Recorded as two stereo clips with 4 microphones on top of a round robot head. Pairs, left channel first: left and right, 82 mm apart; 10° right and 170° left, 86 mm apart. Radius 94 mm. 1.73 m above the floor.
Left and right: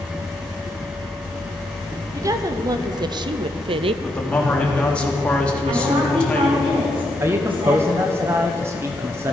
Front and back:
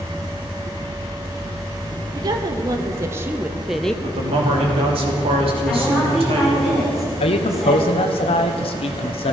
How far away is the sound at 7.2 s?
About 1.2 m.